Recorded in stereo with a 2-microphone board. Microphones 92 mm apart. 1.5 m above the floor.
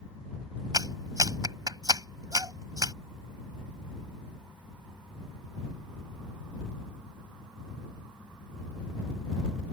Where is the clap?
40° right (ahead or behind).